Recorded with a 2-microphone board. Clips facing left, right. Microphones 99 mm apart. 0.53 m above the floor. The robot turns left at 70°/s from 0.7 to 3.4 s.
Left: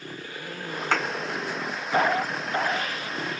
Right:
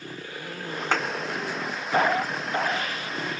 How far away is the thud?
About 3 m.